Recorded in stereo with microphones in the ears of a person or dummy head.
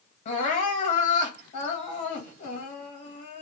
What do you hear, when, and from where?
0.2 s crying: 40° left (ahead or behind), 1.5 m